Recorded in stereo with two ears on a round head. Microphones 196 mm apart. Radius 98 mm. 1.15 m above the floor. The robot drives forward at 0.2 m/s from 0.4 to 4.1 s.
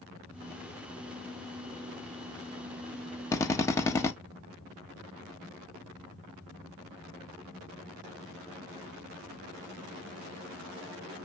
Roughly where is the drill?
Centre.